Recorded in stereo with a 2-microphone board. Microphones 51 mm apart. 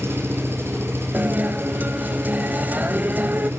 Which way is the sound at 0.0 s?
50° right (ahead or behind).